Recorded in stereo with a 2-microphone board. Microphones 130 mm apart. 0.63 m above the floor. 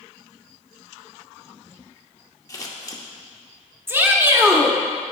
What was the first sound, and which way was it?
Scissors, 25° left (ahead or behind).